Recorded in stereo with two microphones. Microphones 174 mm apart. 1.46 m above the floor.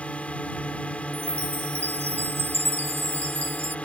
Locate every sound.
0.0 s a drone: 5° left (ahead or behind)
1.1 s a chime: 15° right (ahead or behind)